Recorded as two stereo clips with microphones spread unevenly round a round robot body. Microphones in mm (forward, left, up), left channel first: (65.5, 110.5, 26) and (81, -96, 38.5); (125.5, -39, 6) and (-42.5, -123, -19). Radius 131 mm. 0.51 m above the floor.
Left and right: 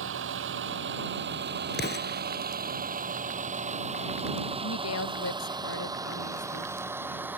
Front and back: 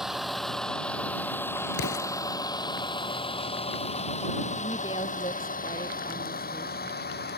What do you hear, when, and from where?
0.0 s a vehicle: 65° right; by 7.4 s 5° right
1.7 s an explosion: 55° left
4.6 s a woman speaking: 100° left